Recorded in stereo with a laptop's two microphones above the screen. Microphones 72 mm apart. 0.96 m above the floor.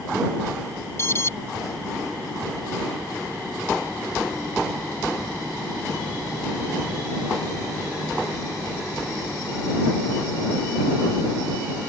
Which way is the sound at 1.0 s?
35° left (ahead or behind).